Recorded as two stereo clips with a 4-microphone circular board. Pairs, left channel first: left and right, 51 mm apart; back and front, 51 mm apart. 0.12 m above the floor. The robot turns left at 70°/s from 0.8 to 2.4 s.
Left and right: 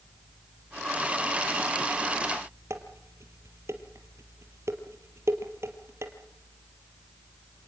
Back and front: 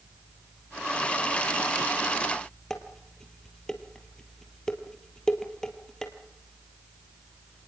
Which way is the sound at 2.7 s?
105° right.